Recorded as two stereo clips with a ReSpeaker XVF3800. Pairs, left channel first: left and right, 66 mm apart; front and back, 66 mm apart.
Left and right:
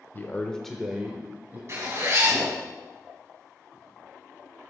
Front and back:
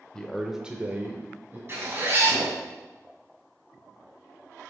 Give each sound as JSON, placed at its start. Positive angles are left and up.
{"t": 0.1, "sound": "a man speaking", "azimuth_deg": 65, "distance_m": 0.9}
{"t": 1.7, "sound": "a zipper", "azimuth_deg": -130, "distance_m": 2.5}